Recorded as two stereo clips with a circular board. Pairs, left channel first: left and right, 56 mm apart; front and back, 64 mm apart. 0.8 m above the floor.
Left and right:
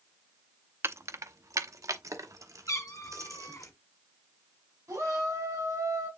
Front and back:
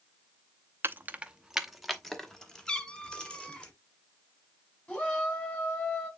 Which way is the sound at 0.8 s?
130° right.